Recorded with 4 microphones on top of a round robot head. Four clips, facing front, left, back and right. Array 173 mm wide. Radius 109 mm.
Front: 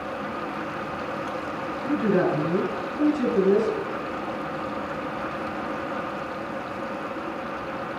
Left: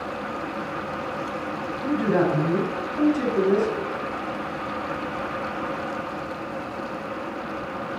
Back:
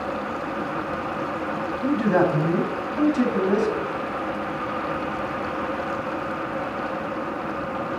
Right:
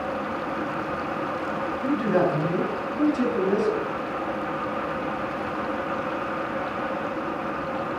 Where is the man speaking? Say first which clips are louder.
Left 1 dB, back 2 dB; straight behind, 6 m.